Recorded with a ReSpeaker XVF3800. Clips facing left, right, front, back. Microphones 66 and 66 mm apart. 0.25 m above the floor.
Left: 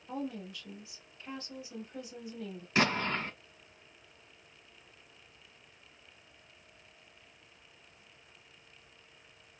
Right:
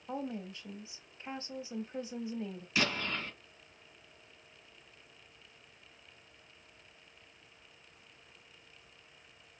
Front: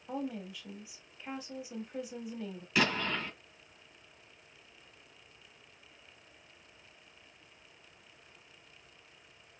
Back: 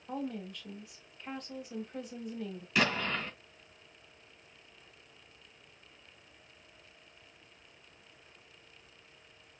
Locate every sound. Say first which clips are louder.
0.1 s a woman speaking: even, even; 80° right, 1.0 m
2.8 s an explosion: left 4 dB, even; 85° left, 1.9 m